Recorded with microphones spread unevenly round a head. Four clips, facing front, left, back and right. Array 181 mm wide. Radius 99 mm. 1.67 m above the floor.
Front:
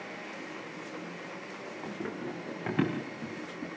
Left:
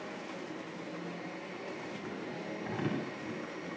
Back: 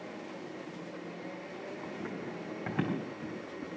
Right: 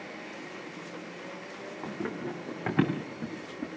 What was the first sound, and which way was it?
Running footsteps, 70° right.